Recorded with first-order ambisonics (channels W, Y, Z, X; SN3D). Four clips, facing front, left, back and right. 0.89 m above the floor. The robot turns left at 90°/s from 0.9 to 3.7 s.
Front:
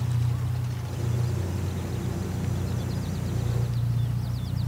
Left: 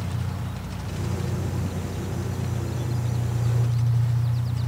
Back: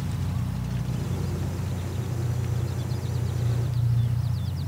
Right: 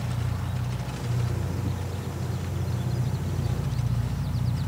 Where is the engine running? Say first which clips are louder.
Even, front 1 dB; 165° left, 1.6 m; by 4.7 s 85° right, 1.6 m.